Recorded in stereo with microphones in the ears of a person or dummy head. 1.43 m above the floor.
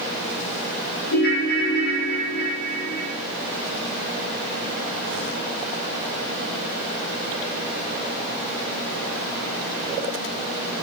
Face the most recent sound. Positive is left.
turn(degrees=65)  # may be behind; listen again after turning